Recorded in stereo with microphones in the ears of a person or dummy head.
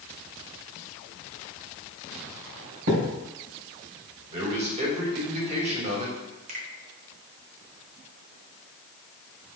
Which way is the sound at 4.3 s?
35° right (ahead or behind).